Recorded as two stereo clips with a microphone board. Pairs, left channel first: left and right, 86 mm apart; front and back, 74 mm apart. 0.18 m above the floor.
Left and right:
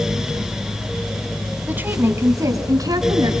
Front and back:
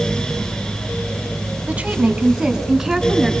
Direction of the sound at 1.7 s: 135° right.